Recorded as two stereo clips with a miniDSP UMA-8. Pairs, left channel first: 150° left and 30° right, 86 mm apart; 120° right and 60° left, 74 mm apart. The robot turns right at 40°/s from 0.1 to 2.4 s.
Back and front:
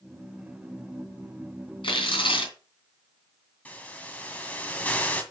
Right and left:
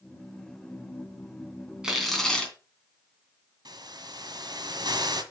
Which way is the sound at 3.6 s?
75° left.